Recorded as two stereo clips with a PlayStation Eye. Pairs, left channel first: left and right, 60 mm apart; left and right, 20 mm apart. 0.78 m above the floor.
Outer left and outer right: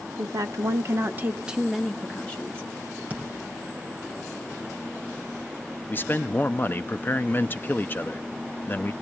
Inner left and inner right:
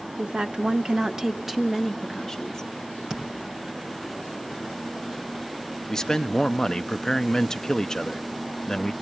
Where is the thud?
25° right (ahead or behind), 4 m.